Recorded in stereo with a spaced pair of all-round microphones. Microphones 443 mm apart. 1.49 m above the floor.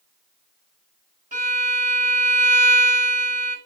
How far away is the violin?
About 3 m.